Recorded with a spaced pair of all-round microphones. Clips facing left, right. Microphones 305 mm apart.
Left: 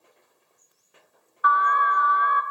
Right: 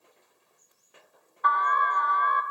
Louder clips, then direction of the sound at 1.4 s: Left 3 dB; 10° left (ahead or behind).